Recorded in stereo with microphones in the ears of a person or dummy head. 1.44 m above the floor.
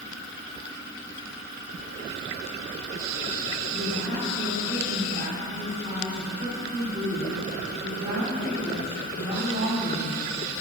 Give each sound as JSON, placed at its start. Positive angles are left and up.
{"t": 3.7, "sound": "a woman speaking", "side_deg": -25, "distance_m": 3.5}